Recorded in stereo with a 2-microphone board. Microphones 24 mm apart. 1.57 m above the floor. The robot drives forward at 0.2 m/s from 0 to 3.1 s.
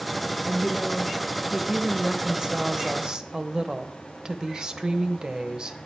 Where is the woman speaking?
20° right (ahead or behind), 1.3 m; by 5.8 s 30° right (ahead or behind), 0.9 m.